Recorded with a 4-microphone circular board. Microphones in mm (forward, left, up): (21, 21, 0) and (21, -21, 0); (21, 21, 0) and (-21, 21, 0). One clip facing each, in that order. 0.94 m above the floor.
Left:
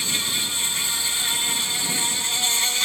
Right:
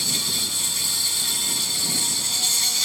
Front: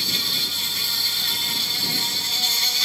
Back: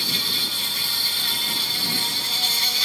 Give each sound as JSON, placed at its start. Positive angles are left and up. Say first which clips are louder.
{"t": 0.0, "sound": "an insect", "louder": "left 2 dB, even", "azimuth_deg": 95}